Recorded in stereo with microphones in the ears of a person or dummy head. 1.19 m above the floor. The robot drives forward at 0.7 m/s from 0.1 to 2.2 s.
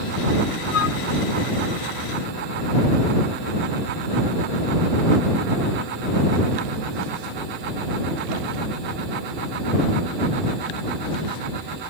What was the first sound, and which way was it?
A flute, 70° left (ahead or behind).